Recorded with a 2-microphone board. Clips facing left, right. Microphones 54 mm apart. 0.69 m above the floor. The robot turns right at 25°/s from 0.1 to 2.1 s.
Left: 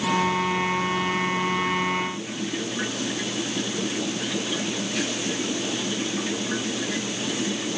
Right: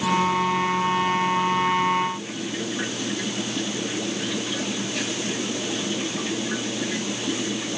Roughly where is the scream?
I don't hear a scream.